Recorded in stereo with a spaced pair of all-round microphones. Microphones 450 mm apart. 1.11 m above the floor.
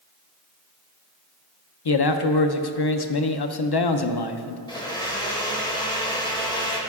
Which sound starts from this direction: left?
A man speaking, at 1.9 s.